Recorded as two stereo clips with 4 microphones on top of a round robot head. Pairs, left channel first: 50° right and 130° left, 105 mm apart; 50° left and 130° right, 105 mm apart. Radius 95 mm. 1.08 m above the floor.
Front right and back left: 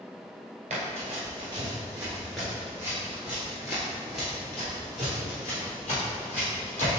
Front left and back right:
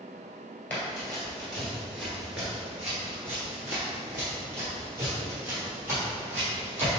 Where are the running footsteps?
125° left, 1.3 m; by 7.0 s 65° right, 2.5 m.